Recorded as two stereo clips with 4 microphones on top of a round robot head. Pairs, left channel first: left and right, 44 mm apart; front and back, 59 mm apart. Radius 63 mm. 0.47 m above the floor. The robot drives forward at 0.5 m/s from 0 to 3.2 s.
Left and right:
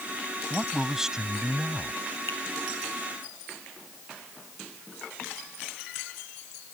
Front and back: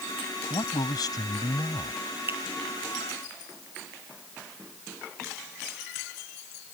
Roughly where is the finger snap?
Behind left.